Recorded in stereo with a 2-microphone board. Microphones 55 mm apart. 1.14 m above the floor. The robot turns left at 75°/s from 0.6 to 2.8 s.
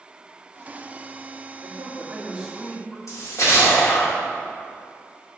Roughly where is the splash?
Left.